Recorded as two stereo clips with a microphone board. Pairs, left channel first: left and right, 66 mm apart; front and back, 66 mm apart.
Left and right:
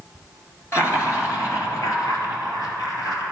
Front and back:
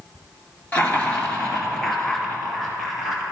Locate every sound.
0.7 s laughter: 60° left, 2 m; by 3.2 s 90° left, 3 m